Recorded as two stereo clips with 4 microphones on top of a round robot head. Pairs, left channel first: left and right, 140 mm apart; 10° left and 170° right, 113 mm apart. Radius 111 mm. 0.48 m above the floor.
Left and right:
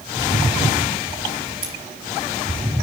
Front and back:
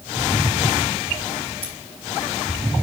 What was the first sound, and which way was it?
Scissors, 120° right.